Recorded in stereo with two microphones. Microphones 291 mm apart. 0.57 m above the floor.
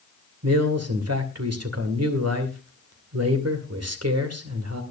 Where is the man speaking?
60° right (ahead or behind), 2 m.